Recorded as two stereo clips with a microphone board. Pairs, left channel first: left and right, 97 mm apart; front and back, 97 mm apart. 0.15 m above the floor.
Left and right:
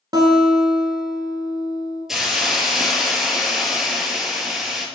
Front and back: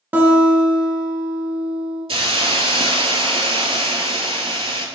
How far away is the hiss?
About 0.6 m.